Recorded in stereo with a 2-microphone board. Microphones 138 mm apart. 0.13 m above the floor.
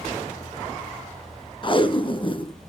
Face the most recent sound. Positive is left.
turn(degrees=35)  # may be behind; listen again after turning